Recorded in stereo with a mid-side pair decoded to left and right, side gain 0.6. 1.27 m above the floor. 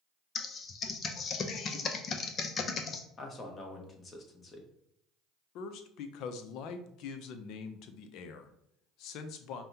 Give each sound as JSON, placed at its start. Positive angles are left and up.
{"t": 0.3, "sound": "typing on a keyboard", "azimuth_deg": 40, "distance_m": 0.5}
{"t": 3.2, "sound": "a man speaking", "azimuth_deg": 30, "distance_m": 1.2}
{"t": 5.5, "sound": "a man speaking", "azimuth_deg": 65, "distance_m": 0.5}